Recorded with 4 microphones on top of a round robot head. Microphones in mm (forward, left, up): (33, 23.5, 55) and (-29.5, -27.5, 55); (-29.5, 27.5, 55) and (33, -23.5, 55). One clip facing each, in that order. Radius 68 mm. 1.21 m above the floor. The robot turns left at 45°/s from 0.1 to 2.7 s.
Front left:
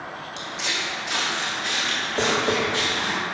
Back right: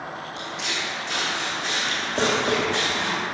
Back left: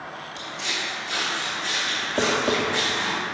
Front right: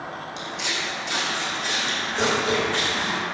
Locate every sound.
0.4 s footsteps: 5° left, 3 m; by 3.2 s 145° right, 4.5 m
2.2 s tapping: 155° left, 1.7 m; by 2.6 s 140° left, 1.7 m